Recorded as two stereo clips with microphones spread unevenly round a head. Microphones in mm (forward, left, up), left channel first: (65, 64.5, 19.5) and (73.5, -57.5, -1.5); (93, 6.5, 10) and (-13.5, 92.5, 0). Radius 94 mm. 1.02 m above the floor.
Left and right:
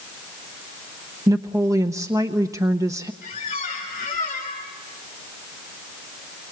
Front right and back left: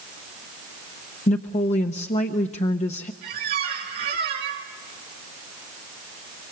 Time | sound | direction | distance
1.3 | a woman speaking | 45° right | 0.8 m
3.2 | a squeak | 160° left | 3.5 m